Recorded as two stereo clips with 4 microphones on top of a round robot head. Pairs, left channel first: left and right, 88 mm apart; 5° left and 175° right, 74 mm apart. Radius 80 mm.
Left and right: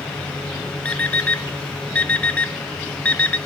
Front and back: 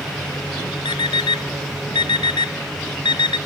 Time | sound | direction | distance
0.8 | an alarm clock | 15° left | 1.0 m